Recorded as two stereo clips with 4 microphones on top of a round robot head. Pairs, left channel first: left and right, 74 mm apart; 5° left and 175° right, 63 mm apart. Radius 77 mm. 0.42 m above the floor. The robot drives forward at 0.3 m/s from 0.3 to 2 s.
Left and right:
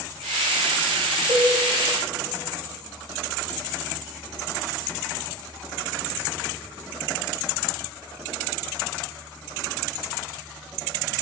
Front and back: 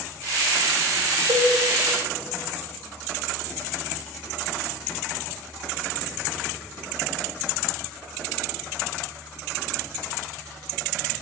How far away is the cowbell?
About 3.5 m.